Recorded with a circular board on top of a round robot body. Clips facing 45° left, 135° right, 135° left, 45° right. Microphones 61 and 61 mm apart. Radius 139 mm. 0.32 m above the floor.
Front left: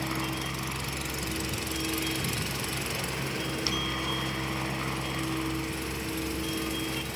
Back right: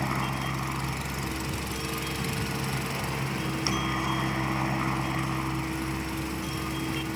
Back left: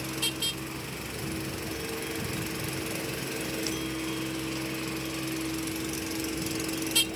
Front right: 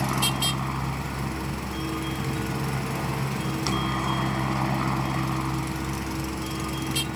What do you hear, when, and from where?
0.0 s a helicopter: 70° right